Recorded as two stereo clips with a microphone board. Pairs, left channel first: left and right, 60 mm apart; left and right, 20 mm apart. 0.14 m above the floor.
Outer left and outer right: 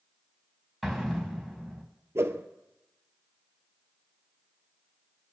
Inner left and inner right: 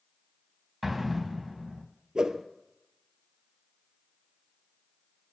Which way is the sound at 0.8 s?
5° left (ahead or behind).